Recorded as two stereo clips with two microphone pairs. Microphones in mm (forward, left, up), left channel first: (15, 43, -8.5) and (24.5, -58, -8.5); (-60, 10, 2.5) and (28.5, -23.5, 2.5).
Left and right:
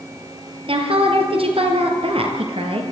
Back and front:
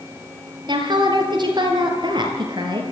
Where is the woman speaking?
60° right, 4.5 m.